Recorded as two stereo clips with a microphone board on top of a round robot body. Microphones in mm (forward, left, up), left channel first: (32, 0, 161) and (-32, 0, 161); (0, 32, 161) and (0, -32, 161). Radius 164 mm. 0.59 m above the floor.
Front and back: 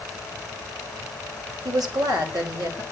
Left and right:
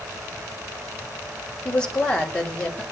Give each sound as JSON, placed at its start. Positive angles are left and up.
{"t": 1.6, "sound": "a woman speaking", "azimuth_deg": 165, "distance_m": 4.0}